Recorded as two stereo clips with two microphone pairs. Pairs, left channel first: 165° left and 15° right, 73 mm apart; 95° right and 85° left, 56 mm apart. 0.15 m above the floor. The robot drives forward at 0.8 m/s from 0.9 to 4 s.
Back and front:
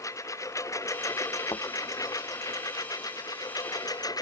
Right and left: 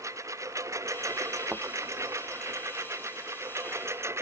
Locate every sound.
0.0 s a lawn mower: 115° left; by 4.2 s 125° left
1.5 s a thud: 140° left